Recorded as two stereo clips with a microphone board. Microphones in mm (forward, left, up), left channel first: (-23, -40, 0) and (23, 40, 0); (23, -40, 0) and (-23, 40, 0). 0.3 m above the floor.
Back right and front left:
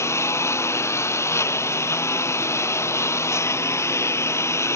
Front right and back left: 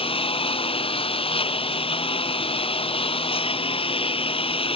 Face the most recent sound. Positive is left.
turn(degrees=-60)